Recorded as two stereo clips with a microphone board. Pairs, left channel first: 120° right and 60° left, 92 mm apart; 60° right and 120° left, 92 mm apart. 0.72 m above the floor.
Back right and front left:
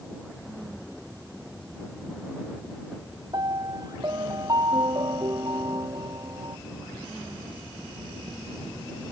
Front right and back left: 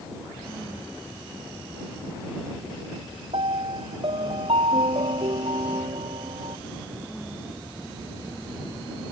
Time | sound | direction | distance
3.3 | a piano | 105° left | ?